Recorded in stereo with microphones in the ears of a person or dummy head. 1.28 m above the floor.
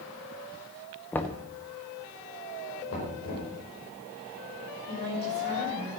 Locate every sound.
1.1 s knocking: 10° left (ahead or behind), 0.8 m
2.9 s knocking: 80° left, 5 m
4.9 s a woman speaking: 50° left (ahead or behind), 6 m